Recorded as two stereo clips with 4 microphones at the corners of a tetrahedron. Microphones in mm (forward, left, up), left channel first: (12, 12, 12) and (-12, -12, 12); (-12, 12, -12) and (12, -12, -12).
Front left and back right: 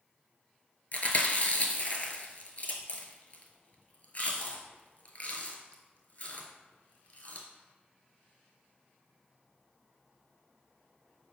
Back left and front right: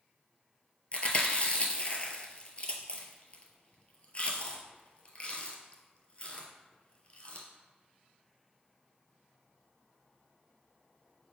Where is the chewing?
90° left, 0.6 m.